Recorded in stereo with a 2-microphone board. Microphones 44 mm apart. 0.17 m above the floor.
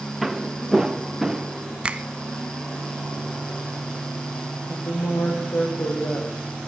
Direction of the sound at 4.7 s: 70° left (ahead or behind).